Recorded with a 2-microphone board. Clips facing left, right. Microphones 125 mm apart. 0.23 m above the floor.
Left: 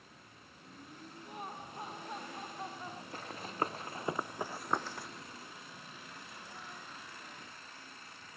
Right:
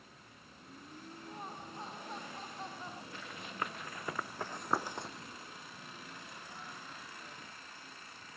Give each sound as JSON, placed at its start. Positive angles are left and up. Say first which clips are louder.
{"t": 1.2, "sound": "laughter", "louder": "left 2 dB", "side_deg": 15}
{"t": 3.1, "sound": "running footsteps", "louder": "left 6 dB", "side_deg": 40}